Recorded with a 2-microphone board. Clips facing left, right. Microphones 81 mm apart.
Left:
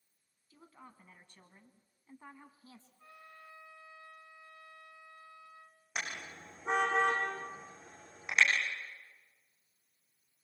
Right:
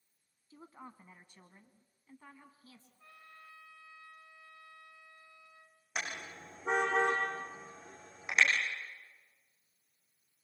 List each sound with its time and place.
0.5 s a woman speaking: 30° right (ahead or behind), 2.5 m; by 2.9 s 35° left (ahead or behind), 2.5 m
3.0 s a trumpet: 15° left (ahead or behind), 2.5 m
6.0 s a car horn: 5° right (ahead or behind), 7.5 m